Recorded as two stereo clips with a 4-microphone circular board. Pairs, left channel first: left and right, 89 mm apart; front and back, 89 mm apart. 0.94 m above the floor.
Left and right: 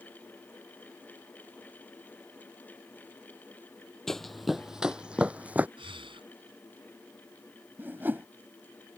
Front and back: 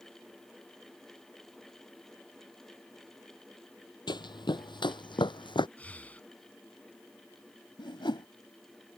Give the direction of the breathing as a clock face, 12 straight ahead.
2 o'clock.